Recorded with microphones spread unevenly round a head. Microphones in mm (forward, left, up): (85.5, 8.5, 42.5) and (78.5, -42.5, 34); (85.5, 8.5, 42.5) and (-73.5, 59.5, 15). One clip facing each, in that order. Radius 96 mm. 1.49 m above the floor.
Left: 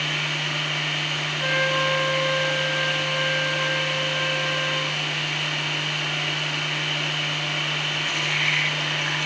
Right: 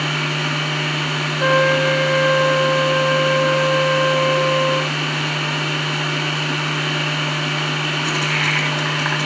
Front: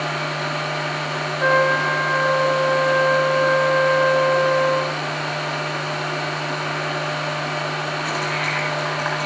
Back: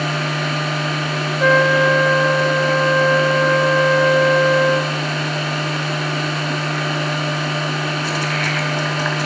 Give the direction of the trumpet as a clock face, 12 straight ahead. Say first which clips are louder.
Right 8 dB, back 4 dB; 5 o'clock.